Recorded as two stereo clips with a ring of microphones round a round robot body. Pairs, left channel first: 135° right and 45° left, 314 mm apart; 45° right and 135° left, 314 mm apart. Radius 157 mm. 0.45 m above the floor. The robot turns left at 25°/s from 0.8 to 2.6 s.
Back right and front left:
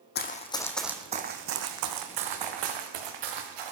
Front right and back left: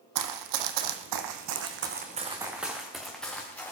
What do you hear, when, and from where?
0.1 s running footsteps: 165° left, 1.3 m; by 3.7 s 40° left, 3.5 m